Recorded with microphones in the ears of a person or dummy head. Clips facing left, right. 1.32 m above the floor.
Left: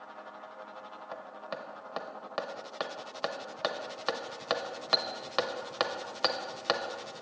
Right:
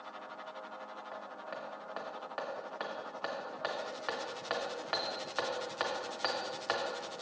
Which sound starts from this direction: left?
Hammering, at 1.1 s.